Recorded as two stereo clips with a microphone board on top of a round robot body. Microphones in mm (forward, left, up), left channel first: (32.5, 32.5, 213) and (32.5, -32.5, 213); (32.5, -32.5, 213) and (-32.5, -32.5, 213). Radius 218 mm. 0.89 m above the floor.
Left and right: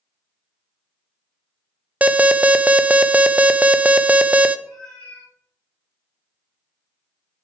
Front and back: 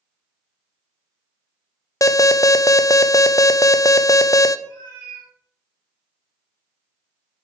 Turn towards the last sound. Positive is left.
turn(degrees=170)